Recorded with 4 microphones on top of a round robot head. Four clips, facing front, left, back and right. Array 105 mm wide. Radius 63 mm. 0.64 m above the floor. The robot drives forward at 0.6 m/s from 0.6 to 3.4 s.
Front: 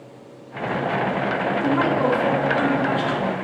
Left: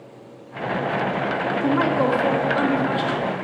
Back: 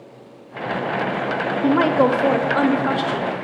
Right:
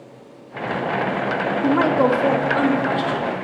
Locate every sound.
1.6 s a woman speaking: 145° right, 0.6 m; by 3.3 s 175° right, 1.4 m